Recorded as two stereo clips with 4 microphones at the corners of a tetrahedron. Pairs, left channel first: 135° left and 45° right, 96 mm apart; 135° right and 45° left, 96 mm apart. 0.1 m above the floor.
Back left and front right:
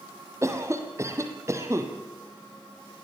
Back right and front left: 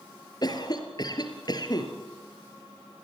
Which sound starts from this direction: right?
A cough, at 0.4 s.